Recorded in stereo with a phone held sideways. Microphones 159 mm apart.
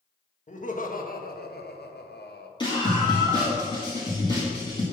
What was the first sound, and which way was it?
Laughter, 50° left (ahead or behind).